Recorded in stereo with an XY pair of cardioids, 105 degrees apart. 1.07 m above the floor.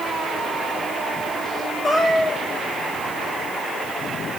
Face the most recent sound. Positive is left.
turn(degrees=35)